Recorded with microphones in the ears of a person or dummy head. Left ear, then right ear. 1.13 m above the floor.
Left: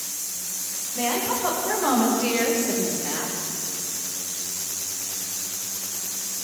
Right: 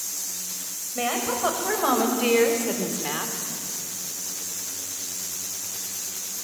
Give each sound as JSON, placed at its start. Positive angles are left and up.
{"t": 0.9, "sound": "a woman speaking", "side_deg": -50, "distance_m": 5.5}